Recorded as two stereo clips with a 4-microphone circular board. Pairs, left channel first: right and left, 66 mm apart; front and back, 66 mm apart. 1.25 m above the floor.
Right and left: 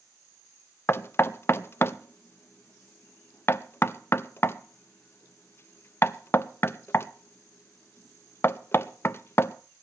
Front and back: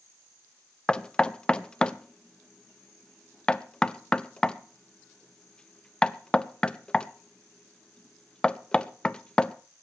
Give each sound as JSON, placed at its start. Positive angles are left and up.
{"t": 0.9, "sound": "knocking", "azimuth_deg": -70, "distance_m": 0.5}